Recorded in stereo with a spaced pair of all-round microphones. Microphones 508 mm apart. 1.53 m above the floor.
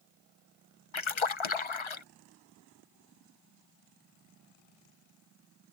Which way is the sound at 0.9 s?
65° left (ahead or behind).